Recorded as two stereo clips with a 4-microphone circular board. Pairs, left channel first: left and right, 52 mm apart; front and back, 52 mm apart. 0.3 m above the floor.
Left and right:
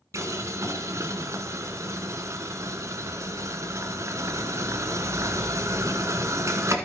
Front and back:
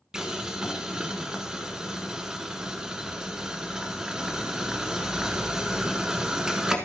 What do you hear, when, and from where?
0.1 s boiling: 105° right, 1.2 m